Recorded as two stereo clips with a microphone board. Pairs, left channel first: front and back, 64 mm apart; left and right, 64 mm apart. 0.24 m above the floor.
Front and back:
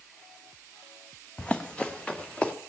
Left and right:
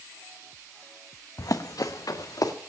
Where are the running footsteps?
70° left, 0.9 m.